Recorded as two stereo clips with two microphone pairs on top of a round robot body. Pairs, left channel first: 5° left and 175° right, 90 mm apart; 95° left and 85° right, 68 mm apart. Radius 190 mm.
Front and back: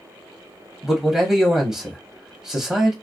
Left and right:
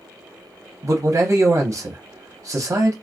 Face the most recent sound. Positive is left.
turn(degrees=-95)